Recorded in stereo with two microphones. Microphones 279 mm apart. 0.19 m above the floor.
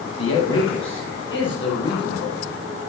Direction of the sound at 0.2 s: 55° left (ahead or behind).